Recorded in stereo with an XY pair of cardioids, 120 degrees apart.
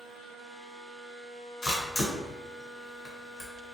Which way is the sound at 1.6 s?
30° left.